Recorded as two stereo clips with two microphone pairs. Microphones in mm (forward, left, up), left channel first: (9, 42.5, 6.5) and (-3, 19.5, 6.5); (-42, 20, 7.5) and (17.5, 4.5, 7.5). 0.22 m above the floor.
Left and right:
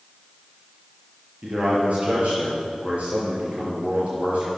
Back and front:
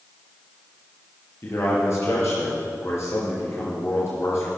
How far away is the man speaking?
About 4 m.